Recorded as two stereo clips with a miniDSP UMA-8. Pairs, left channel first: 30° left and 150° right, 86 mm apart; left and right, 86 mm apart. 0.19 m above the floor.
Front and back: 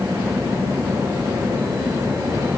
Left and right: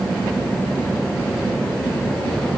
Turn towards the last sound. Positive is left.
No sound to turn to.